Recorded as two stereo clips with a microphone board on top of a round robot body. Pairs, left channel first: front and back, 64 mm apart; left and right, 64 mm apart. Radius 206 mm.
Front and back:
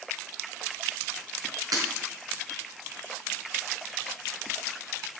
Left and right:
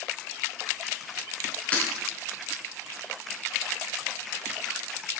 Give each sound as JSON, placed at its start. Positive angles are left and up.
{"t": 1.7, "sound": "breaking glass", "azimuth_deg": 160, "distance_m": 4.0}